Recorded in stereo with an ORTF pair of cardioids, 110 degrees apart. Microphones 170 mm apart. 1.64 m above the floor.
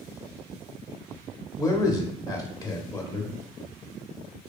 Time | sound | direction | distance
1.6 | a man speaking | 25° left | 0.6 m